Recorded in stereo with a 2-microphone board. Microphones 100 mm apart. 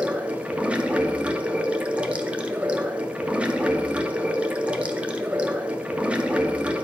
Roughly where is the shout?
No shout in this recording.